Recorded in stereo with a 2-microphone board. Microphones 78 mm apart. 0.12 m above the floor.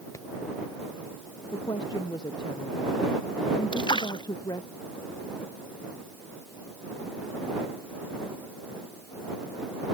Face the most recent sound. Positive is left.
turn(degrees=80)